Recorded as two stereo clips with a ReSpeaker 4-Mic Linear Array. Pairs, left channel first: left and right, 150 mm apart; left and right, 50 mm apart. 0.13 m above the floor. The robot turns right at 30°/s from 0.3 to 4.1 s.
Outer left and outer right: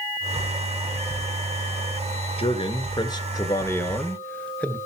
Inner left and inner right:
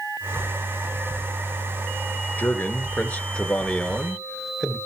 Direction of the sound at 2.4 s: 115° left.